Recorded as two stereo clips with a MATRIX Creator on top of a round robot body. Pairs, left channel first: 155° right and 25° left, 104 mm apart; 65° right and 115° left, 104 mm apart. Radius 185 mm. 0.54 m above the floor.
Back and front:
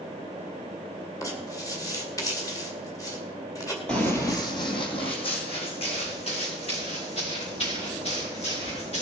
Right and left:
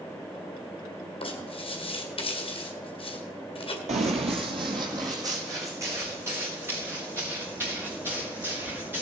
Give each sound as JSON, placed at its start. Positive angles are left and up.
{"t": 1.2, "sound": "writing", "azimuth_deg": -100, "distance_m": 2.0}
{"t": 3.9, "sound": "running footsteps", "azimuth_deg": 120, "distance_m": 0.9}